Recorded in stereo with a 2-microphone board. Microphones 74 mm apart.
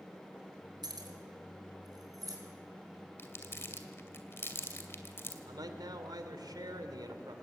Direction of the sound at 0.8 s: 70° right (ahead or behind).